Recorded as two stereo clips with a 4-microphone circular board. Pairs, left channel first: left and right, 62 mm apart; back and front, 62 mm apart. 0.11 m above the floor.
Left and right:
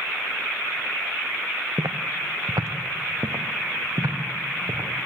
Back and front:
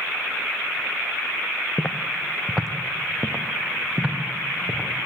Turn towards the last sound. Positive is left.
turn(degrees=-65)